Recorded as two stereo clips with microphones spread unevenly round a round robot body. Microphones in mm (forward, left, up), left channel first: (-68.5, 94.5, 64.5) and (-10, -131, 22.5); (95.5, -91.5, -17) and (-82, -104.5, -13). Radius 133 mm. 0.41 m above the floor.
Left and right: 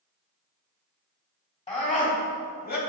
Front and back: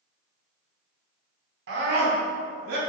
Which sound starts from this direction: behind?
A scream, at 1.7 s.